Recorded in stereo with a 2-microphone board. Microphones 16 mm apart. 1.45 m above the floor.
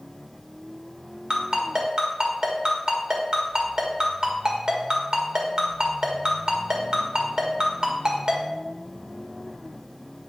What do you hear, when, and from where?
1.3 s a ringtone: 50° right (ahead or behind), 1.7 m